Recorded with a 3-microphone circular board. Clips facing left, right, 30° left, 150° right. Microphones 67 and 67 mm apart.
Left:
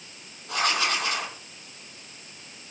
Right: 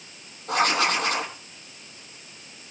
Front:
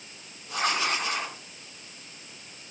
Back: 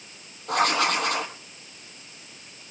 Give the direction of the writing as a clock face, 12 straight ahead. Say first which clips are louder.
Right 4 dB, back 5 dB; 4 o'clock.